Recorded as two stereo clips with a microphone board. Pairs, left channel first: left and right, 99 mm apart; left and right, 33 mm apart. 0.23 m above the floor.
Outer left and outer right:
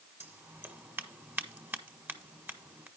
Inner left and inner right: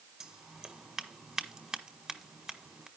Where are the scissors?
20° right (ahead or behind), 1.5 m.